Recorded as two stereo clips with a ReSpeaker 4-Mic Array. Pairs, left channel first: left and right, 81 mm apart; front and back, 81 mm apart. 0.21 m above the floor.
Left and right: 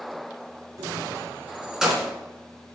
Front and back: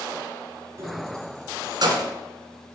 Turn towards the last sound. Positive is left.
turn(degrees=175)